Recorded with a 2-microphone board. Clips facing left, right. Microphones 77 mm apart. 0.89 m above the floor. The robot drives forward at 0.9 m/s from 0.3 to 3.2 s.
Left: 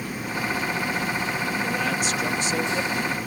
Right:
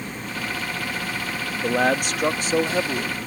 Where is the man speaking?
60° right (ahead or behind); by 3.2 s 35° right (ahead or behind).